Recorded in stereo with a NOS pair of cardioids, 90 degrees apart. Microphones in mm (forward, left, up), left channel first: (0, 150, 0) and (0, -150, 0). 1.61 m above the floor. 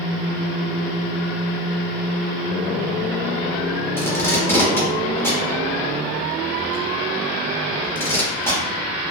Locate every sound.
4.0 s tape being pulled: 5° left, 0.9 m